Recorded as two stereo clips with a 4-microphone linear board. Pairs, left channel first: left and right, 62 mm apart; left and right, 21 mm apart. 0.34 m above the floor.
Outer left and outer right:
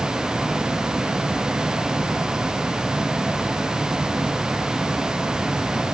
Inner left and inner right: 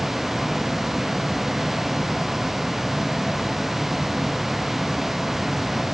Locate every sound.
Only background noise.